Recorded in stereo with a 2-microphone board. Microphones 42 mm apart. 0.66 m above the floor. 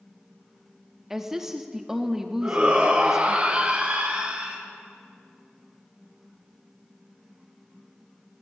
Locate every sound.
1.1 s a woman speaking: 10° right (ahead or behind), 0.8 m
2.4 s a shout: 25° right (ahead or behind), 3.5 m